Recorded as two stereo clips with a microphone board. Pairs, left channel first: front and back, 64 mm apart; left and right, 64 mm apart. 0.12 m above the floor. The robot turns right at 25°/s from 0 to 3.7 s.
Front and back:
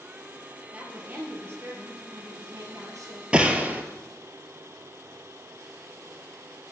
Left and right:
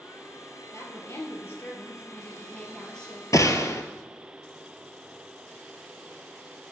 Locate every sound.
0.7 s a woman speaking: 115° left, 2.5 m; by 3.2 s 175° left, 2.5 m
3.3 s a gunshot: 110° left, 0.8 m; by 3.8 s 115° left, 0.8 m